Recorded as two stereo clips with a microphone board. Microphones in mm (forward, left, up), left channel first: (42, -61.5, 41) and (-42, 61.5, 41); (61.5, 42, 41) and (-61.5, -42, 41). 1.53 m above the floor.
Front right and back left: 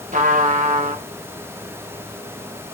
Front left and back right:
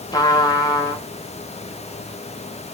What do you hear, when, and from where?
0.1 s a trumpet: 95° left, 1.6 m